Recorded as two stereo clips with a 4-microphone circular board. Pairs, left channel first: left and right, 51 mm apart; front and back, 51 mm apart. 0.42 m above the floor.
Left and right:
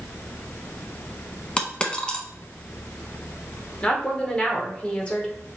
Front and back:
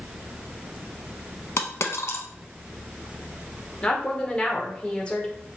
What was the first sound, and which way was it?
A dropped coin, 20° left.